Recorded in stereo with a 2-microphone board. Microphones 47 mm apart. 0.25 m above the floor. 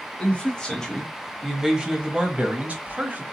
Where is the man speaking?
25° left (ahead or behind), 1.5 m; by 3.2 s 40° right (ahead or behind), 1.7 m.